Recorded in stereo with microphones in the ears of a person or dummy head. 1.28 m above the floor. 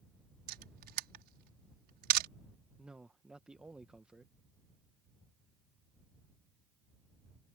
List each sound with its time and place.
0.5 s a camera shutter: 55° right (ahead or behind)
2.8 s a man speaking: 5° right (ahead or behind)